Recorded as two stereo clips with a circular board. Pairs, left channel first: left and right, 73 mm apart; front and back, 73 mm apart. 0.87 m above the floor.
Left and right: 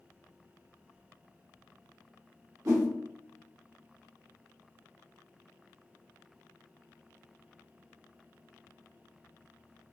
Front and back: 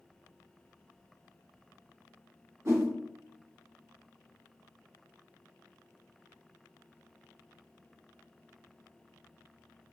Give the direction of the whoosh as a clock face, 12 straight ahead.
4 o'clock.